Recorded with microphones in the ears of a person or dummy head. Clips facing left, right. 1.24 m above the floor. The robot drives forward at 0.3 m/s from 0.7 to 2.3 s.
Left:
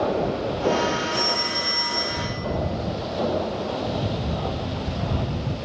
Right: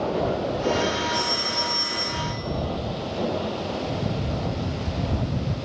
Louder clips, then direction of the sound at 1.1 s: Left 1 dB; centre (ahead or behind).